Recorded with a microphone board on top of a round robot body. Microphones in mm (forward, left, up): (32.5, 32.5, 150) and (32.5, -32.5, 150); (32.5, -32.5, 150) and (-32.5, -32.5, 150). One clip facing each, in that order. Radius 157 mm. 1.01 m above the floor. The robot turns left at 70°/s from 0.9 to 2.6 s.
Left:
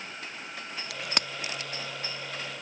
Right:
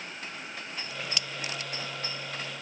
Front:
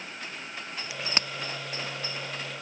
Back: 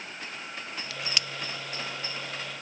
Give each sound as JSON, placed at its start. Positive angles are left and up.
{"t": 0.9, "sound": "a crack", "azimuth_deg": 75}